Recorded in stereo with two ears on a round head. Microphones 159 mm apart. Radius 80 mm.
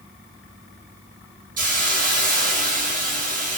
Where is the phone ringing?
No phone ringing in this recording.